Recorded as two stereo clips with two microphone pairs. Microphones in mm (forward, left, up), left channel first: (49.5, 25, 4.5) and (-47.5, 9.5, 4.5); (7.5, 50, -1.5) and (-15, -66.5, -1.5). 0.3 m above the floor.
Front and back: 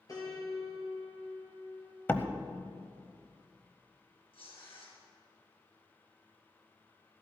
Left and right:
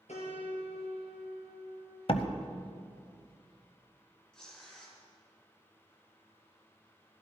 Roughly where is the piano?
Ahead left.